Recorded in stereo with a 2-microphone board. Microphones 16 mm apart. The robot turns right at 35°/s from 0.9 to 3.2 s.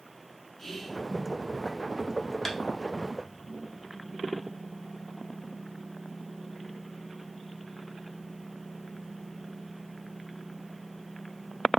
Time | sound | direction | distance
0.6 | whispering | 20° left (ahead or behind) | 1.2 m
2.5 | tapping | 30° left (ahead or behind) | 0.8 m